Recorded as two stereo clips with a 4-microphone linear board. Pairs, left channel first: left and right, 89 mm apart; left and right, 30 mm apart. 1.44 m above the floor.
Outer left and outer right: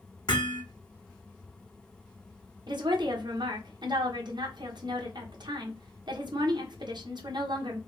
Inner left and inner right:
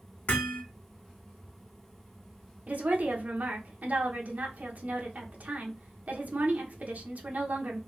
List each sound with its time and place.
0.3 s hammering: 55° left (ahead or behind), 1.6 m
2.7 s a woman speaking: 55° right (ahead or behind), 1.1 m